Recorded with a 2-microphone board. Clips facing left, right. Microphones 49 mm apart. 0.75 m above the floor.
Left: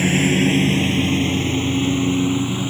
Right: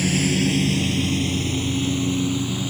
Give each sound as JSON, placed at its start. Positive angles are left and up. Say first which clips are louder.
{"t": 0.0, "sound": "a lawn mower", "louder": "left 4 dB", "side_deg": 30}